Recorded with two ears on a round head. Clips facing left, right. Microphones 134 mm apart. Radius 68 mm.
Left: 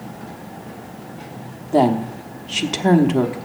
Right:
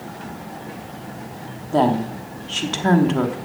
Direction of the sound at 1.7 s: 15° left (ahead or behind).